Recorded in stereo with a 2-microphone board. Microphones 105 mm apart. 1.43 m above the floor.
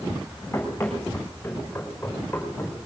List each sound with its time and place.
0.5 s running footsteps: 20° left (ahead or behind), 5 m; by 2.9 s 15° left (ahead or behind), 6 m